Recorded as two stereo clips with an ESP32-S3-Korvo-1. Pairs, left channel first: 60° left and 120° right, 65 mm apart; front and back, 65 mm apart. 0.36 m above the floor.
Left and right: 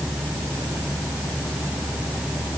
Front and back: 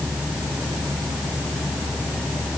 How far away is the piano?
No piano in this recording.